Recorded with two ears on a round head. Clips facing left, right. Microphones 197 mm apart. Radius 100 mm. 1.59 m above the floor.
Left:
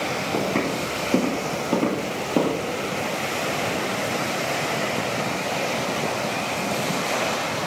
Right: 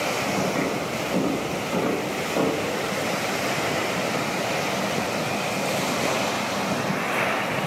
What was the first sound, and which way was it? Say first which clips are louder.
Footsteps: left 3 dB; 45° left (ahead or behind).